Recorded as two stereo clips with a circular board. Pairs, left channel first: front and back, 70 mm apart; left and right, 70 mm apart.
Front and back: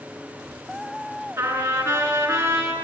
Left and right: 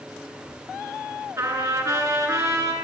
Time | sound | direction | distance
1.4 | a trumpet | 125° right | 5.5 m